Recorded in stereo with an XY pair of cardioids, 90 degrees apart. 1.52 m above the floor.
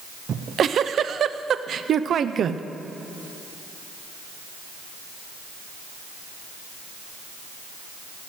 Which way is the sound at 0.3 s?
60° right.